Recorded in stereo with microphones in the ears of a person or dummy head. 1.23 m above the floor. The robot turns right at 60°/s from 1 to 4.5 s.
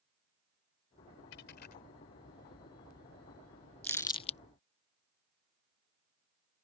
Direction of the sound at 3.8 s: 10° left (ahead or behind).